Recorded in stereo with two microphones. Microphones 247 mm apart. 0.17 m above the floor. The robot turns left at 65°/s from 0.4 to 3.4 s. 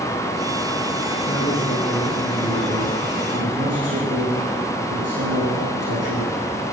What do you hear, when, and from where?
1.2 s a man speaking: 45° left, 7.5 m; by 6.3 s 95° right, 7.5 m